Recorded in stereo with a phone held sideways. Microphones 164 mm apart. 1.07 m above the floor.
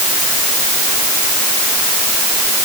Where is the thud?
No thud in this recording.